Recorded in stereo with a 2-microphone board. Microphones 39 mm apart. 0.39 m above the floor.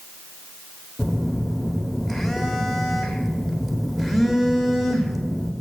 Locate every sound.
1.0 s a phone buzzing: 5° left (ahead or behind), 1.3 m